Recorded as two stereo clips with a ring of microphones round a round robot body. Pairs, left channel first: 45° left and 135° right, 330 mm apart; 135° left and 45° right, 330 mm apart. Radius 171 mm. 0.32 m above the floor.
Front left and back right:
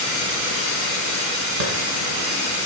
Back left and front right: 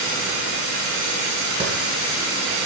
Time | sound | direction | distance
1.6 | a clap | 115° right | 2.5 m